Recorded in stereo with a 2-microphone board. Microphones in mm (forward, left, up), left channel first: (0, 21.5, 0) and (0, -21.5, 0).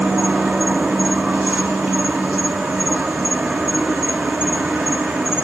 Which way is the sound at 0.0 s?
25° right (ahead or behind).